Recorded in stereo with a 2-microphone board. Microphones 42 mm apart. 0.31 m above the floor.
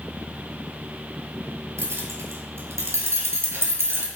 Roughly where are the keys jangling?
Right.